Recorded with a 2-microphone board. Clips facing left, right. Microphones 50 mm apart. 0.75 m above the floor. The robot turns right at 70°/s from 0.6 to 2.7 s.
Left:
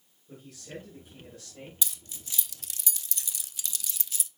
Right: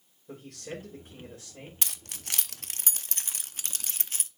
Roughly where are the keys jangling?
Right.